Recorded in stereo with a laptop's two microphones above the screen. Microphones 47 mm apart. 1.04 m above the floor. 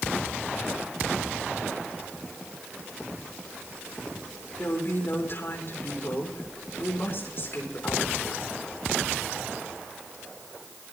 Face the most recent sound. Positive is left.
turn(degrees=50)  # may be behind; listen again after turning